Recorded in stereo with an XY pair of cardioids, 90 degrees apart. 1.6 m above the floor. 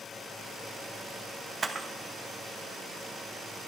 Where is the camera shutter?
35° right, 1.5 m.